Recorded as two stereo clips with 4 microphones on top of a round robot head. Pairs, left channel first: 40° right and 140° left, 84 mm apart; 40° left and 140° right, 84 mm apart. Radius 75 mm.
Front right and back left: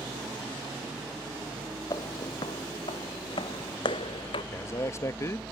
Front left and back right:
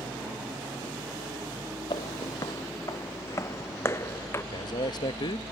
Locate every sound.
1.9 s footsteps: 10° left; by 4.4 s 20° right
4.5 s a man speaking: 15° left